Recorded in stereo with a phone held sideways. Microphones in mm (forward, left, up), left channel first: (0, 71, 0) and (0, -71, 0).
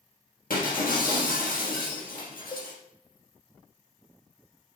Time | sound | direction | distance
0.5 | breaking glass | 80° left | 4 m
2.5 | a cowbell | 35° left (ahead or behind) | 0.7 m